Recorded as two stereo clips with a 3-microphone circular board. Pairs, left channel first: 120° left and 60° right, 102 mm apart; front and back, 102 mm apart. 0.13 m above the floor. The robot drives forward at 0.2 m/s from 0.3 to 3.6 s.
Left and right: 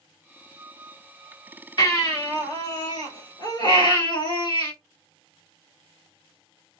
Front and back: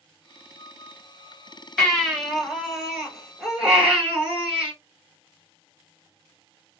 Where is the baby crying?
85° left, 1.6 m; by 4.7 s 100° left, 1.7 m.